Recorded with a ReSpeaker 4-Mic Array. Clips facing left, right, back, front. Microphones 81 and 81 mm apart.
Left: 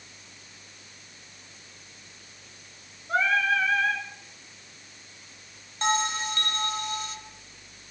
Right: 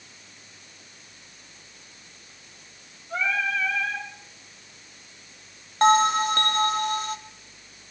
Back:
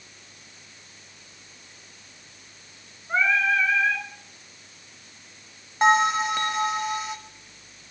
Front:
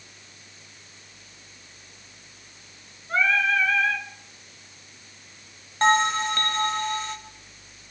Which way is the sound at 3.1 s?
105° left.